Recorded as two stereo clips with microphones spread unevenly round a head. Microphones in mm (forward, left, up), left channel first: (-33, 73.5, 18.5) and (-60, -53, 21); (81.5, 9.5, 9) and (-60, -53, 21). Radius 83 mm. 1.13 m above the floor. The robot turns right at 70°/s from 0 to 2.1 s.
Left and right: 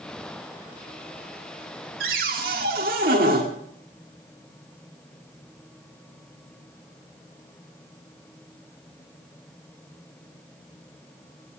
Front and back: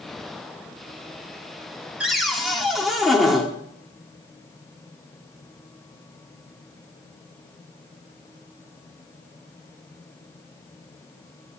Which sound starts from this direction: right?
A cupboard door, at 2.0 s.